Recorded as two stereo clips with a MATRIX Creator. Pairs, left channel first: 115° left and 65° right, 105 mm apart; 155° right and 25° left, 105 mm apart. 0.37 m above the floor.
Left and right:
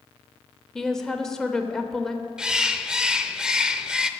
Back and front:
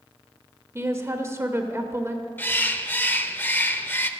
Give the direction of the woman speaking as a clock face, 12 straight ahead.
11 o'clock.